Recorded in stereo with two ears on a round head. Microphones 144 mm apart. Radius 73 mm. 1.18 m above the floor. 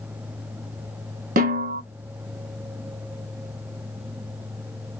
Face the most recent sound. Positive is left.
turn(degrees=-55)  # may be behind; listen again after turning